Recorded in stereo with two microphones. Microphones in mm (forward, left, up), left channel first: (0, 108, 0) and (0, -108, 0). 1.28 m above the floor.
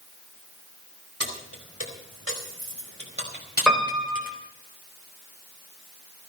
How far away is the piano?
About 3.5 m.